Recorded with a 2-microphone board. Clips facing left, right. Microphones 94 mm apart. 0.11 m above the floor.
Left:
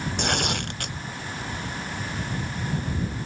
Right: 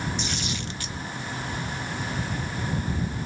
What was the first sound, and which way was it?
Tearing paper, 60° left (ahead or behind).